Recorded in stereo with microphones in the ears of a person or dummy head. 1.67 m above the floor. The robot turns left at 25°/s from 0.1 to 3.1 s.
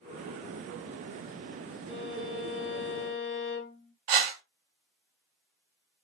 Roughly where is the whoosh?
Right.